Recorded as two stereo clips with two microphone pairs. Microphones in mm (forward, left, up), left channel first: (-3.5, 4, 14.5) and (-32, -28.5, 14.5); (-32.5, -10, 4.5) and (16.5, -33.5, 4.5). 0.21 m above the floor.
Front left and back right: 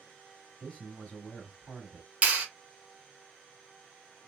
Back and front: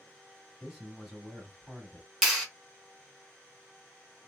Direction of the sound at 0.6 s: 45° left.